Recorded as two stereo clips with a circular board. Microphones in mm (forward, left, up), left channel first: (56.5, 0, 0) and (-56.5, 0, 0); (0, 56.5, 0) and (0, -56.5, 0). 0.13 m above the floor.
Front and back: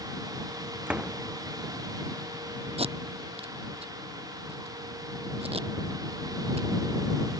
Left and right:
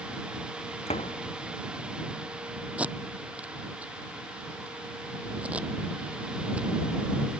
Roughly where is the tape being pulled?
Behind.